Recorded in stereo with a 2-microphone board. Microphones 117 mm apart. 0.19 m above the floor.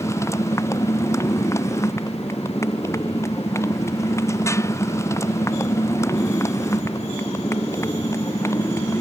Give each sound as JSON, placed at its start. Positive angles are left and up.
{"t": 0.0, "sound": "a motorcycle", "side_deg": 25}